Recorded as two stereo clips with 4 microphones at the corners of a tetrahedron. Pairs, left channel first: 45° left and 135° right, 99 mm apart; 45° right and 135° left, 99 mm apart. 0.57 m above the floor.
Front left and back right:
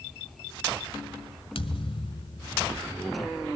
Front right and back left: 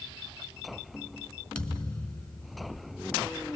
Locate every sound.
1.6 s a thud: 35° left, 1.8 m